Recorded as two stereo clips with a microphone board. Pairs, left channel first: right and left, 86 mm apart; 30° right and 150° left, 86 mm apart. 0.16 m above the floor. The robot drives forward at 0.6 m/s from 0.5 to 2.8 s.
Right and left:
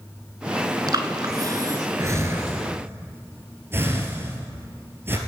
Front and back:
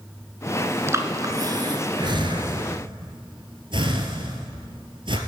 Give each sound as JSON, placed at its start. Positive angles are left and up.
{"t": 0.9, "sound": "breathing", "azimuth_deg": 100, "distance_m": 0.9}